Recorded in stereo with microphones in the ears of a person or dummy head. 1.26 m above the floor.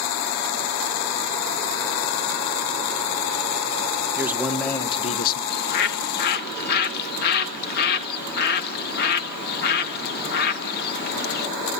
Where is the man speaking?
10° right (ahead or behind), 1.2 m; by 5.4 s 55° left (ahead or behind), 1.1 m.